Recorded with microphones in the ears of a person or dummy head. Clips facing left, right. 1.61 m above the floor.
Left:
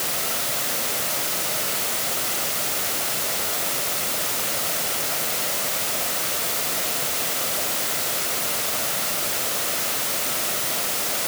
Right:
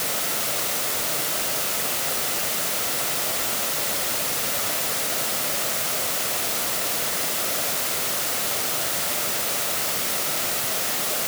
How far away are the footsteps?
No footsteps in this recording.